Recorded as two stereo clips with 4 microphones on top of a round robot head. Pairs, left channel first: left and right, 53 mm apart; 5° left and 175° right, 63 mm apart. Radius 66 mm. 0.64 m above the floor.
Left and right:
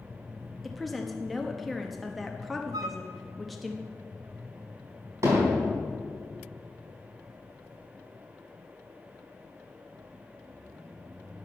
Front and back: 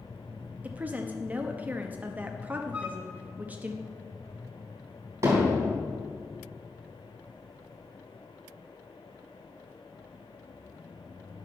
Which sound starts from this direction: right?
A flute, at 2.7 s.